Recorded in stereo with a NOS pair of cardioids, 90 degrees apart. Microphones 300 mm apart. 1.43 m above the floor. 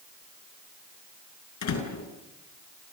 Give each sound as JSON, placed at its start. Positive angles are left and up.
{"t": 1.6, "sound": "a door slam", "azimuth_deg": 70, "distance_m": 7.5}